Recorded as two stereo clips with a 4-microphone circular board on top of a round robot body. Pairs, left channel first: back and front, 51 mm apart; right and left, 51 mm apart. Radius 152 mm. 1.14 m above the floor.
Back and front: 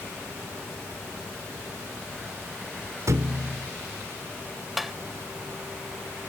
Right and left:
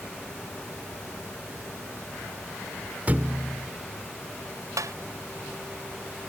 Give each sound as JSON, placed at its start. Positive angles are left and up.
{"t": 3.1, "sound": "a thud", "azimuth_deg": 25}
{"t": 4.8, "sound": "tapping", "azimuth_deg": 90}